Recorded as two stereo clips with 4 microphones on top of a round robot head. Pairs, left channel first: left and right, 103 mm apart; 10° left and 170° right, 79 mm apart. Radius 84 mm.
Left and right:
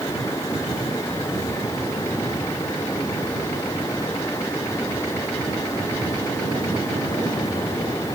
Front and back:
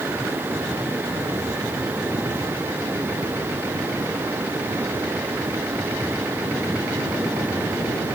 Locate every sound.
Only background noise.